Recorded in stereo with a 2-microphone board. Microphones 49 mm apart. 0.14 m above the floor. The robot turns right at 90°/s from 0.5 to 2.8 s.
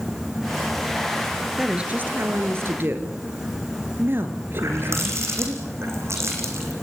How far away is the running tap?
About 4.5 m.